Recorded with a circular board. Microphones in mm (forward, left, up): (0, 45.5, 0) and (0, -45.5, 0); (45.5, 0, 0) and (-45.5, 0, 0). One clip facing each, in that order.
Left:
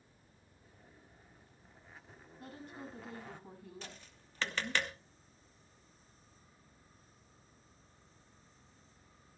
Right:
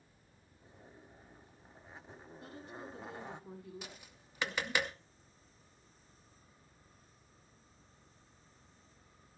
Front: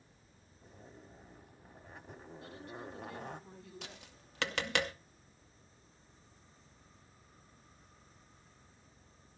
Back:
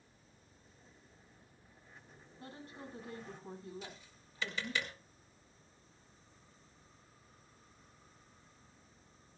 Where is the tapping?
10° right, 0.9 m.